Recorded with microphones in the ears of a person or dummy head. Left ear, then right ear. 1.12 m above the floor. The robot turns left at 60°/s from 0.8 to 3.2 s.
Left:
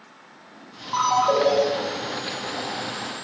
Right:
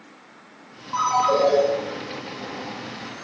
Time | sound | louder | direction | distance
0.9 | a ringtone | even | 155° left | 0.9 m